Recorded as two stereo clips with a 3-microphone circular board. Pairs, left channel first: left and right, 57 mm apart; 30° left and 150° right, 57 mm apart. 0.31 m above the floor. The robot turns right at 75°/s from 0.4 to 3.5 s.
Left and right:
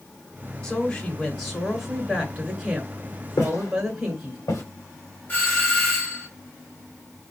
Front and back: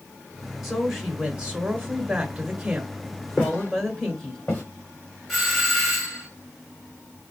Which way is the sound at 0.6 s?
110° left.